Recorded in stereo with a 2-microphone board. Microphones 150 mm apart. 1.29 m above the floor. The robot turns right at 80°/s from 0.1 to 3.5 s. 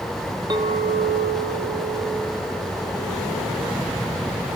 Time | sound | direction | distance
0.5 | a clink | 150° right | 0.7 m